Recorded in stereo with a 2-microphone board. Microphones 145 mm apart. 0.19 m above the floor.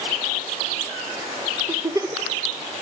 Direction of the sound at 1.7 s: 20° right (ahead or behind).